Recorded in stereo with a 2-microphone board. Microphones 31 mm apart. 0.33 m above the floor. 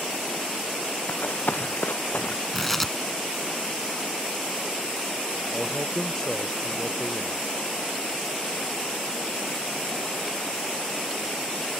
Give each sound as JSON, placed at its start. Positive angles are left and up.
{"t": 1.1, "sound": "running footsteps", "side_deg": 80}
{"t": 2.5, "sound": "tearing paper", "side_deg": 5}
{"t": 5.5, "sound": "a man speaking", "side_deg": 15}